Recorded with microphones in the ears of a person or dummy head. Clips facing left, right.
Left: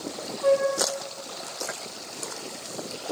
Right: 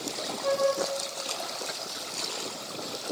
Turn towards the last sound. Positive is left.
turn(degrees=60)  # may be behind; listen again after turning